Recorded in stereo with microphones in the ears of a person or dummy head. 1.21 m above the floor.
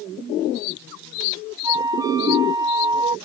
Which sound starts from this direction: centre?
A flute, at 1.6 s.